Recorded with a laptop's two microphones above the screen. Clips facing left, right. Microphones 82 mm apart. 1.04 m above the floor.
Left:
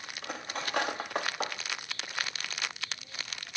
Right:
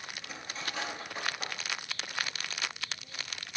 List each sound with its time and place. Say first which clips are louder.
0.2 s cutlery clinking: left 6 dB; 60° left (ahead or behind), 0.8 m